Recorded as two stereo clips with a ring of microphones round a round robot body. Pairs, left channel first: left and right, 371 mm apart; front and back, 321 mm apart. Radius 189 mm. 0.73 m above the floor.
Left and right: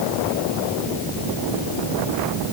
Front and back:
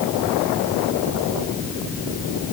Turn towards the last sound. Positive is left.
No sound to turn to.